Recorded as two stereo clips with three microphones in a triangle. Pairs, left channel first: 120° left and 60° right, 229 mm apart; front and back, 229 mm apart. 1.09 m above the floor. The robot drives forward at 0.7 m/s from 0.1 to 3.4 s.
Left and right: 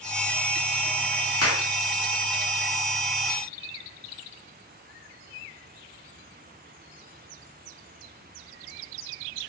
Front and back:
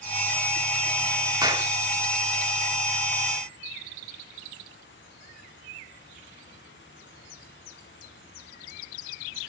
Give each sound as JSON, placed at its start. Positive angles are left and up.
{"t": 1.4, "sound": "a clap", "azimuth_deg": 105, "distance_m": 1.8}